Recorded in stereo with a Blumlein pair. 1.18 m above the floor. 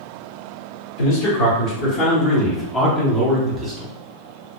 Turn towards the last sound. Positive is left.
turn(degrees=-30)